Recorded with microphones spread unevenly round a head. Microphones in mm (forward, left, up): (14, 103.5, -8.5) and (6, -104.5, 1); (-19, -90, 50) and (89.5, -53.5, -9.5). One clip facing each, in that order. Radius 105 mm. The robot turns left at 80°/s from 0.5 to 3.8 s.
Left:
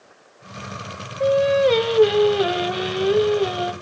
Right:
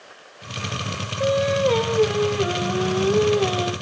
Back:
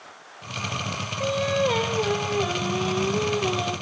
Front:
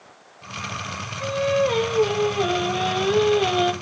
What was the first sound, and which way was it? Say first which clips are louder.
Singing: left 3 dB, front 3 dB; 170° right.